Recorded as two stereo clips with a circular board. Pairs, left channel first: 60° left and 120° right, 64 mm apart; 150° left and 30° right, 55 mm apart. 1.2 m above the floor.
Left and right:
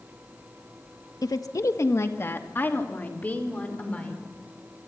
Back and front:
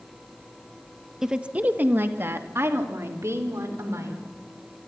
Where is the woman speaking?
50° left, 1.3 m; by 4.2 s 10° right, 4.5 m.